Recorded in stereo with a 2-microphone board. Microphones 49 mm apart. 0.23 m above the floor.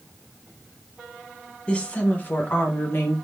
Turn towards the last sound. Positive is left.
turn(degrees=50)  # may be behind; listen again after turning